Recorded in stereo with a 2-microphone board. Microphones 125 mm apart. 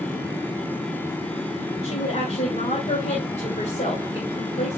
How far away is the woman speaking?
About 2.5 m.